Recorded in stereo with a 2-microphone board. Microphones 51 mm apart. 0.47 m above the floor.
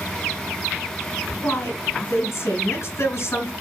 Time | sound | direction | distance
1.4 | a woman speaking | 55° left (ahead or behind) | 5 m